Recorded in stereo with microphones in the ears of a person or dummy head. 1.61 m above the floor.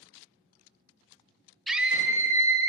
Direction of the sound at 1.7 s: Centre (ahead or behind).